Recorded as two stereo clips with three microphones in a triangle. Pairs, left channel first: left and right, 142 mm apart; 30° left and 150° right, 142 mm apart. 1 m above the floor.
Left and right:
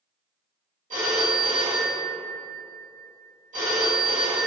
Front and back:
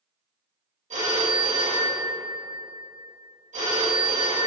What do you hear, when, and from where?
0.9 s a phone ringing: 115° right, 1.1 m